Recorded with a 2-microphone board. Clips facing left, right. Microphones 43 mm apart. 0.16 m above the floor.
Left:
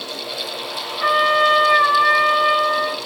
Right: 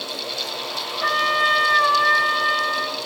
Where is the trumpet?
20° left (ahead or behind), 1.0 m.